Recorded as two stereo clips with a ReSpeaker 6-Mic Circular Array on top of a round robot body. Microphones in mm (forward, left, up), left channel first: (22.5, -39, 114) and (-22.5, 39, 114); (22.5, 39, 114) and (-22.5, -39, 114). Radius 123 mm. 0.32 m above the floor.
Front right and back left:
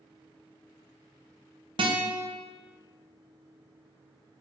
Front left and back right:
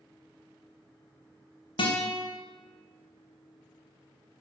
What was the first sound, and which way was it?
A guitar, 90° left.